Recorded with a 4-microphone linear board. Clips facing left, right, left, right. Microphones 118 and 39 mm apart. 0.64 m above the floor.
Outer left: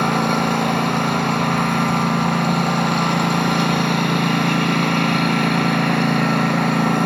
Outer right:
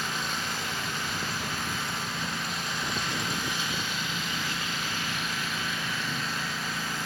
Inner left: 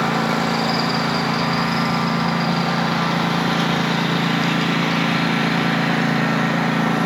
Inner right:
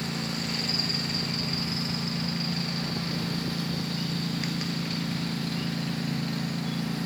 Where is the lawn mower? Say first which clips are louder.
Outer left 16 dB, inner left 13 dB; 65° left (ahead or behind).